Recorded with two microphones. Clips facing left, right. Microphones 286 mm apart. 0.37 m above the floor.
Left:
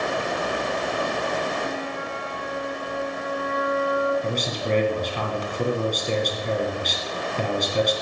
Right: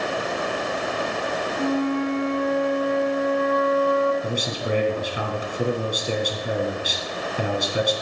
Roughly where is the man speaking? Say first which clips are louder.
Even; centre.